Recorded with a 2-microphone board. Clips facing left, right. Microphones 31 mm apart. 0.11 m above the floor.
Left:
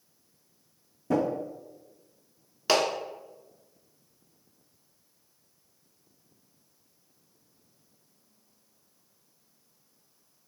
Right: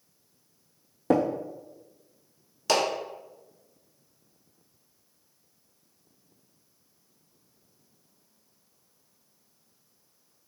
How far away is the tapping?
About 0.9 m.